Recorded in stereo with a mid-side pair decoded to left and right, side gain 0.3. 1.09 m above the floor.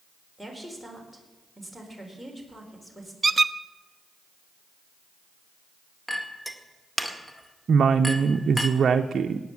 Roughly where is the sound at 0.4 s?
Ahead.